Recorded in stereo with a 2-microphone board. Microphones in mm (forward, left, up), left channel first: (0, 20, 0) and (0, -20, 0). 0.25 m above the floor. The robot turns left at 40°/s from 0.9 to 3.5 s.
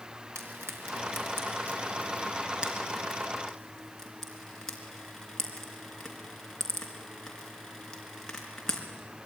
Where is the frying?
70° right (ahead or behind), 4 m; by 8.8 s 15° left (ahead or behind), 4 m.